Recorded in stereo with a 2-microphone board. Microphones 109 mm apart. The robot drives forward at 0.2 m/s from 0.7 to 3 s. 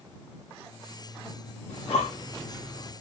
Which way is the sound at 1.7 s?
80° left.